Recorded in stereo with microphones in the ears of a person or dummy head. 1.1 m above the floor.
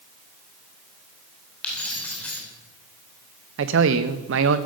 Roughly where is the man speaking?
Right.